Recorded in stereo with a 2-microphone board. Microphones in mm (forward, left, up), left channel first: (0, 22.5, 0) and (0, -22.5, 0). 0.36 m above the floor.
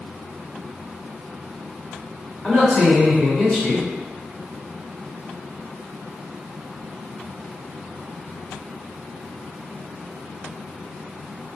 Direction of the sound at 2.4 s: 30° left (ahead or behind).